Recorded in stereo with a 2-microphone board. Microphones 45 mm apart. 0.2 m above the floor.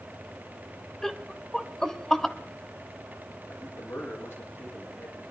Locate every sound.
1.0 s laughter: 10° left (ahead or behind), 1.0 m
3.5 s a man speaking: 70° left (ahead or behind), 8 m